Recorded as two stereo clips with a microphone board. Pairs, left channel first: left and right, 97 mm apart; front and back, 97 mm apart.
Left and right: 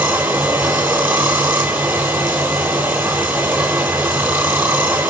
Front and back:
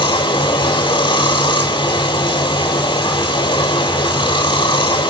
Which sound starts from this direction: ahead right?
Running water, at 0.0 s.